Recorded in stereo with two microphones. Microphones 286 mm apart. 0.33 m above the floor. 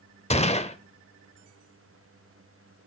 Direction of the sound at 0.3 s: 25° left (ahead or behind).